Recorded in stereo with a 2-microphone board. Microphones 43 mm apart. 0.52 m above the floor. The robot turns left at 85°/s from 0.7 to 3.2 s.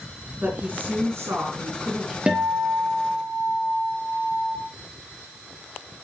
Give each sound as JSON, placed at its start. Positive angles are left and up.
{"t": 0.4, "sound": "a woman speaking", "azimuth_deg": -40, "distance_m": 5.0}
{"t": 2.3, "sound": "a guitar", "azimuth_deg": -155, "distance_m": 5.0}